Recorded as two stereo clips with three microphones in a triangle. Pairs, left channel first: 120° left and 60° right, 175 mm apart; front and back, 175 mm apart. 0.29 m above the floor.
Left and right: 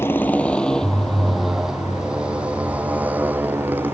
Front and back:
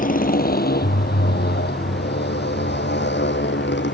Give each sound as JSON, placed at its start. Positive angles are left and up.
{"t": 0.0, "sound": "a motorcycle", "azimuth_deg": 45}